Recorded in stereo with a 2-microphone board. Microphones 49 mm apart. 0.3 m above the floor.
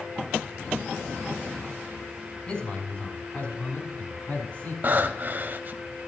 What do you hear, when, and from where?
2.5 s a man speaking: 25° left (ahead or behind), 3 m; by 4.7 s 35° left (ahead or behind), 4 m
4.8 s breathing: 45° right (ahead or behind), 0.7 m